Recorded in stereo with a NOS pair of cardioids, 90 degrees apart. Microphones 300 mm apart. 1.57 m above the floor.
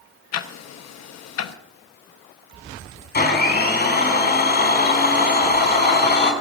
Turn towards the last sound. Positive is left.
turn(degrees=35)